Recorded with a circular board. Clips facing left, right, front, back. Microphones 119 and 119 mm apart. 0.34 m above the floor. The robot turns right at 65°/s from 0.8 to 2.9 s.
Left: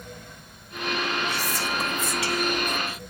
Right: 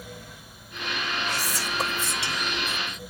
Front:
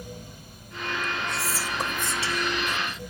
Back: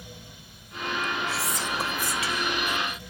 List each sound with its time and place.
1.3 s whispering: 100° right, 1.1 m; by 3.0 s 5° left, 1.1 m